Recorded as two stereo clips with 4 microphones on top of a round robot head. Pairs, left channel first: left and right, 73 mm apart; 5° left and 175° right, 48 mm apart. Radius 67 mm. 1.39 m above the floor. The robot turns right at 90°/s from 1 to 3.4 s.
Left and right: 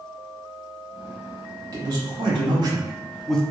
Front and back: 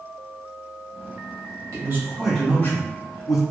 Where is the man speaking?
140° right, 0.9 m; by 3.4 s 10° left, 0.9 m.